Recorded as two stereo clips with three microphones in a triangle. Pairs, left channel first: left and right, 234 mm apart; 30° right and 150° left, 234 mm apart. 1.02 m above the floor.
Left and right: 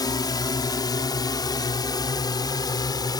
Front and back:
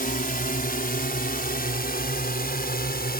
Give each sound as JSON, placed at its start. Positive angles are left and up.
{"t": 0.0, "sound": "a drone", "azimuth_deg": 20}